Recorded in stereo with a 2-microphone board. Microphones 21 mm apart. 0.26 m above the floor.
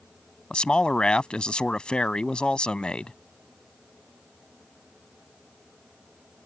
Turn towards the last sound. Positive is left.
turn(degrees=50)  # may be behind; listen again after turning